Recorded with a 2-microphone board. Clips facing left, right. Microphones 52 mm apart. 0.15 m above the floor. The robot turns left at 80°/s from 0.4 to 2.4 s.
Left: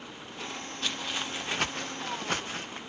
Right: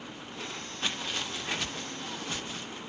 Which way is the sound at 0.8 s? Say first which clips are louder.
Even; 20° right (ahead or behind).